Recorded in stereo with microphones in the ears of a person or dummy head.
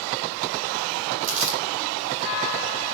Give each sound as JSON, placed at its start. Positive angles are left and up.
{"t": 1.2, "sound": "crumpling", "side_deg": -45, "distance_m": 4.5}